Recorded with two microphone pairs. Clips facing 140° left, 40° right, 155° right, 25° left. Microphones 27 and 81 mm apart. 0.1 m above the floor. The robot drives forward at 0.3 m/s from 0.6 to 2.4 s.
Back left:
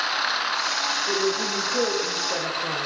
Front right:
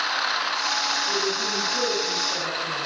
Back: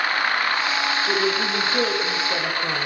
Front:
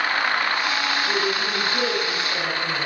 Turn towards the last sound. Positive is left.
turn(degrees=175)